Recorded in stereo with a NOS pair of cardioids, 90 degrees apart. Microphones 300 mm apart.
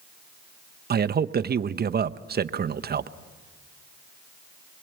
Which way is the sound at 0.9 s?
30° right.